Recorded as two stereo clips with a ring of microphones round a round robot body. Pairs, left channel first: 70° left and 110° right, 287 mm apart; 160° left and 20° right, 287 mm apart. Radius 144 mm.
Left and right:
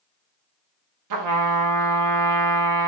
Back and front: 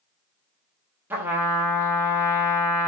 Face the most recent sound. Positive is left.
turn(degrees=-105)